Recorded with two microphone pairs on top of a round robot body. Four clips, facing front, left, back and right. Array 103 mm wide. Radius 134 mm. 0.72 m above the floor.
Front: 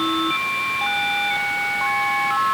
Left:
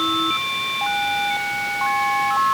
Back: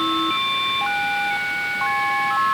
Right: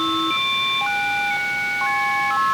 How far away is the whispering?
I don't hear whispering.